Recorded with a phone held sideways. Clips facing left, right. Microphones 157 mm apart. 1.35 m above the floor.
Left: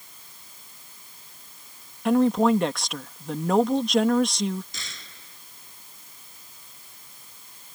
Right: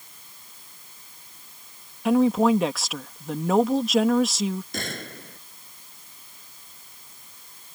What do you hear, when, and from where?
2.0 s a woman speaking: 5° right (ahead or behind)
4.7 s a gunshot: 60° right (ahead or behind)